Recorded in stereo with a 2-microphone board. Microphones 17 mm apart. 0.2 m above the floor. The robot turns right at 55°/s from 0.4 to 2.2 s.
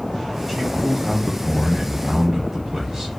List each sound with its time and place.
0.5 s a man speaking: centre (ahead or behind), 1.0 m; by 3.1 s 20° right (ahead or behind), 1.0 m